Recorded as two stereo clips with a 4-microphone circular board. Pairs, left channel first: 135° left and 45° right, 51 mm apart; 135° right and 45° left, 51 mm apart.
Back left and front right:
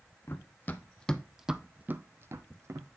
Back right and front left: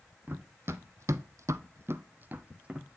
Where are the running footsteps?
85° left, 0.8 m; by 3.0 s 25° right, 0.9 m.